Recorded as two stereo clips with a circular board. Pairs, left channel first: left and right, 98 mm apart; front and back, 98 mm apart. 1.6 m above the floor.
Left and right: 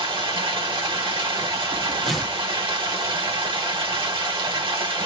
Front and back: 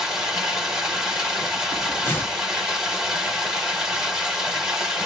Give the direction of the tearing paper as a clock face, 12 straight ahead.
12 o'clock.